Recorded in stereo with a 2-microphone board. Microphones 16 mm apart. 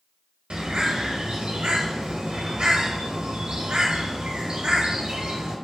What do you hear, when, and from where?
0.5 s a bird: 85° right, 0.6 m